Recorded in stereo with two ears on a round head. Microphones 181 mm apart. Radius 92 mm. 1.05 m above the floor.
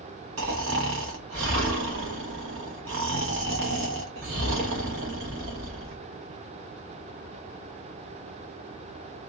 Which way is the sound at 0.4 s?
65° right (ahead or behind).